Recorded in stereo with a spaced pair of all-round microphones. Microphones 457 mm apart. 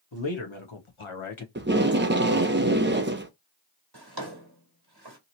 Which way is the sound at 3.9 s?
50° right (ahead or behind).